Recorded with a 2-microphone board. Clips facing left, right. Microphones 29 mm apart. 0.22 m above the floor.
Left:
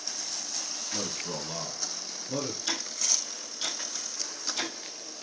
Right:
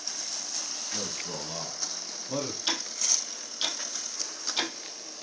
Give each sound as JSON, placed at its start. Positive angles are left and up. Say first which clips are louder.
{"t": 0.9, "sound": "a man speaking", "louder": "left 2 dB", "side_deg": 30, "distance_m": 1.3}
{"t": 2.7, "sound": "ticking", "louder": "right 1 dB", "side_deg": -35, "distance_m": 1.2}